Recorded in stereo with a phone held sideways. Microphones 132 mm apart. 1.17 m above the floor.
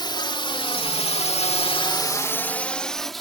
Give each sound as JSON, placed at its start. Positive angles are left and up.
{"t": 0.0, "sound": "a drone", "side_deg": 35}